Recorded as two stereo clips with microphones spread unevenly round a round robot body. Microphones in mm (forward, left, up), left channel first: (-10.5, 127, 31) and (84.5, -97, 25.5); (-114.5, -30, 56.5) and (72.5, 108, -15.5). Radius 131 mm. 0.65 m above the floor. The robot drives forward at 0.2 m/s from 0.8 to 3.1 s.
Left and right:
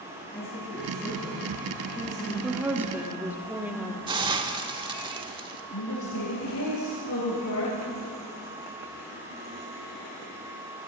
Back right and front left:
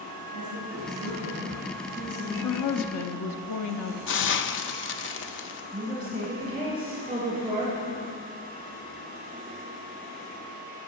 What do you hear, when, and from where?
0.3 s a woman speaking: 165° right, 4.5 m
2.4 s a woman speaking: 145° right, 1.0 m; by 4.0 s 150° right, 1.1 m
4.1 s a hiss: 120° right, 0.7 m
5.7 s a woman speaking: 105° left, 2.5 m